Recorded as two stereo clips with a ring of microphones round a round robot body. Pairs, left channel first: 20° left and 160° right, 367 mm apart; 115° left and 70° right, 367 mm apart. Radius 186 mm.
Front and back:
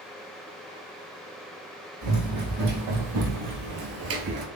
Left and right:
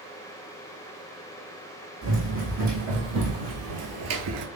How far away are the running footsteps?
About 1.8 m.